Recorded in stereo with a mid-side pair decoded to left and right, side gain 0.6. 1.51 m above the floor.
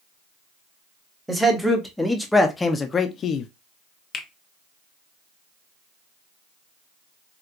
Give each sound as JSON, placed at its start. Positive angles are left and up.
{"t": 1.3, "sound": "a man speaking", "azimuth_deg": -5, "distance_m": 1.4}
{"t": 4.1, "sound": "a finger snap", "azimuth_deg": 35, "distance_m": 0.9}